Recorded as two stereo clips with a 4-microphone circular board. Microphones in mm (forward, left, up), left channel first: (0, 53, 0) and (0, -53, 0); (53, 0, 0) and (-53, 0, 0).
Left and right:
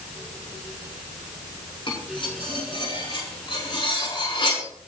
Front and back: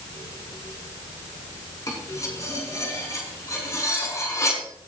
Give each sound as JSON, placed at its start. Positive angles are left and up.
{"t": 1.9, "sound": "cutlery clinking", "azimuth_deg": 55, "distance_m": 6.0}